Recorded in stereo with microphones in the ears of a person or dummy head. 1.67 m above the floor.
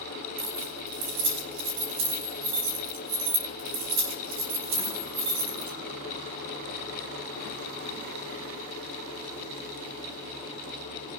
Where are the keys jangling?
45° right (ahead or behind), 1.4 m.